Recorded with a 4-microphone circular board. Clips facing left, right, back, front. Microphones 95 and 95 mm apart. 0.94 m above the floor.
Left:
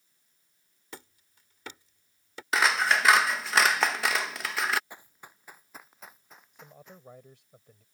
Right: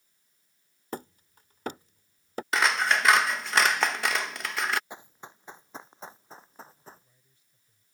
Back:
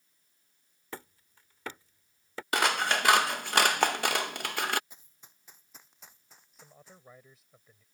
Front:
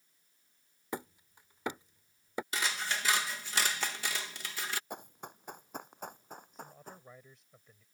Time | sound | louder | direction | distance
0.9 | hammering | right 10 dB, front 4 dB | 65° right | ?
2.5 | scissors | even, back 11 dB | straight behind | ?
4.9 | running footsteps | right 4 dB, front 17 dB | 25° right | ?
6.5 | a man speaking | right 1 dB, front 7 dB | 90° left | ?